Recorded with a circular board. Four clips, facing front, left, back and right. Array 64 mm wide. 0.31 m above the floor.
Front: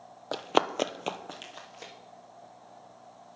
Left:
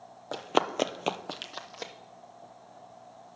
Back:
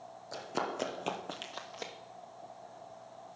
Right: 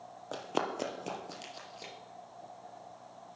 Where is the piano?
I don't hear a piano.